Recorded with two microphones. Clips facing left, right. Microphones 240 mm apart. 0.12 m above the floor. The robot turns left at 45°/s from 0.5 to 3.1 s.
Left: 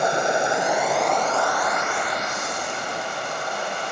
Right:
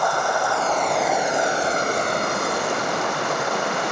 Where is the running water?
20° left, 1.1 m; by 3.9 s 95° right, 1.1 m.